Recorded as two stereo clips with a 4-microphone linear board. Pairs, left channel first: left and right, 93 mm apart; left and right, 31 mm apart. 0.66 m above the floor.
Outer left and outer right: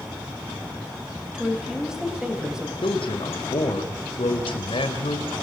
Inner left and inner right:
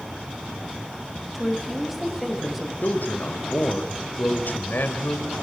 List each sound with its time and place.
1.3 s a woman speaking: 5° right (ahead or behind), 4.5 m
2.8 s a man speaking: 70° left (ahead or behind), 3.5 m